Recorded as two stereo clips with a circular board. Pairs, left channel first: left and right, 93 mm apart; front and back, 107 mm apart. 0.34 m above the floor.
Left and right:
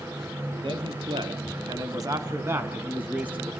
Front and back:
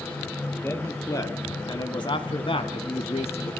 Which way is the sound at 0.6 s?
65° right.